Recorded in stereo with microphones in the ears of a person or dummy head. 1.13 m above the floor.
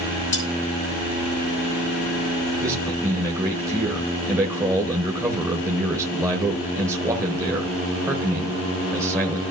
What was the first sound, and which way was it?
Cutlery clinking, 20° left (ahead or behind).